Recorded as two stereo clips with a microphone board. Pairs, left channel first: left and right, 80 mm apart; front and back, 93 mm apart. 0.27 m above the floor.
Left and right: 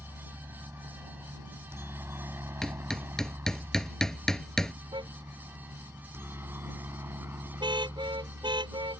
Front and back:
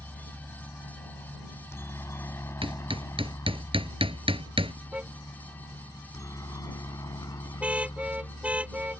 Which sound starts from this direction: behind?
Hammering, at 2.6 s.